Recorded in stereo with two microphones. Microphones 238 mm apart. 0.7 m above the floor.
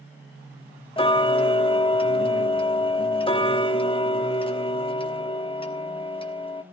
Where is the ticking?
20° left (ahead or behind), 1.2 m.